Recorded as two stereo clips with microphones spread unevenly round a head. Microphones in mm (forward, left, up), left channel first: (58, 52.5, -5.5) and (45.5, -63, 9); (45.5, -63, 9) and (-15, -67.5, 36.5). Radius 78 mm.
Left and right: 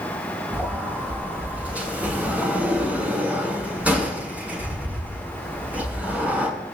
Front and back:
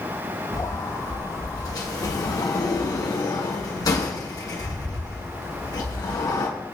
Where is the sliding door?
20° right, 9 m.